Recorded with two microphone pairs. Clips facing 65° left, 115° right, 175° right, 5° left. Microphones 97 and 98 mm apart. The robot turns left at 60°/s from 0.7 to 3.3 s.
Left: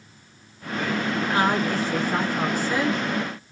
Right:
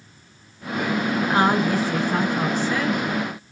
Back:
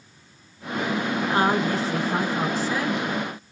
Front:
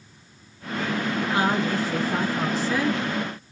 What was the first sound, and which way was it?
A woman speaking, 160° right.